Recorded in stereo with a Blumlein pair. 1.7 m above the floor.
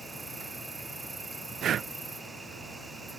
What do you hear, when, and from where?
0.0 s an insect: 10° right
1.6 s breathing: 30° right